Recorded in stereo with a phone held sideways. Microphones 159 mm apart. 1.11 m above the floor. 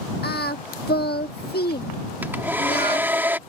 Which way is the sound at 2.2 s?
15° right (ahead or behind).